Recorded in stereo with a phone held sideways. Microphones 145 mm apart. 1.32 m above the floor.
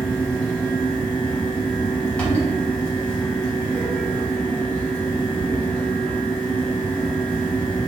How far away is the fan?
About 2.5 m.